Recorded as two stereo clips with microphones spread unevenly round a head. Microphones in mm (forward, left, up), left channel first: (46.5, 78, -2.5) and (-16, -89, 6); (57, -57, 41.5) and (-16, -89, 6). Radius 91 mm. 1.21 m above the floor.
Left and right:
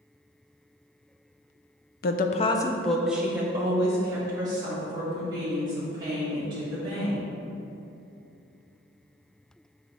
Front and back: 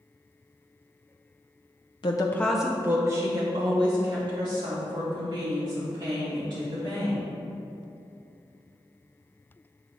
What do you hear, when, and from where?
2.0 s a woman speaking: 70° left, 0.5 m; by 7.2 s 175° right, 4.5 m